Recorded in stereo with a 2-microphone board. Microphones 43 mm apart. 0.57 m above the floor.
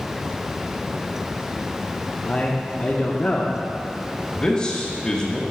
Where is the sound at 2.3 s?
30° left (ahead or behind), 0.8 m.